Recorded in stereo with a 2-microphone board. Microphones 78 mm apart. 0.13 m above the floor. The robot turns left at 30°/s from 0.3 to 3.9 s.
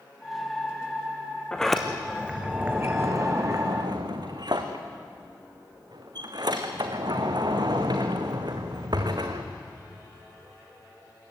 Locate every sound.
1.5 s a sliding door: 10° left (ahead or behind), 2.5 m; by 9.5 s 60° right (ahead or behind), 2.5 m